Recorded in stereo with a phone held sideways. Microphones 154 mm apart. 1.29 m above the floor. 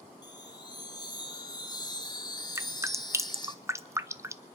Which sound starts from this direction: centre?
Dripping, at 2.5 s.